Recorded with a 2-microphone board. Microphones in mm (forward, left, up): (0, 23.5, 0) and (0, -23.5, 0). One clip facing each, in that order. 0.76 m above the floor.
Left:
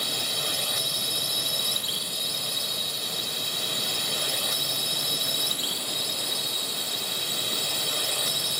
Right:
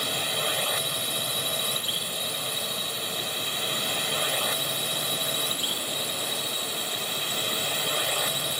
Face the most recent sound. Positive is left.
turn(degrees=-30)  # may be behind; listen again after turning